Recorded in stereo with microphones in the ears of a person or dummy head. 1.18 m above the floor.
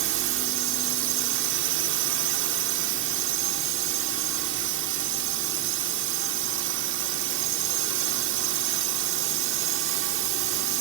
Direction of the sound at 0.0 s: 65° right (ahead or behind).